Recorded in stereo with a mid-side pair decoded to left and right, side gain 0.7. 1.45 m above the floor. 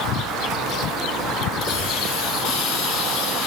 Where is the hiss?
60° left, 6 m.